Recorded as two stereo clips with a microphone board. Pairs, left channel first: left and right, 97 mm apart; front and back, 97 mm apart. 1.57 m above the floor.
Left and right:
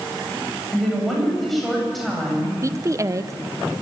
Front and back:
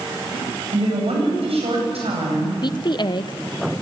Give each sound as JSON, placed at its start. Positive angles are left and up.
{"t": 0.7, "sound": "a woman speaking", "azimuth_deg": 180, "distance_m": 9.0}
{"t": 2.6, "sound": "a woman speaking", "azimuth_deg": -35, "distance_m": 0.8}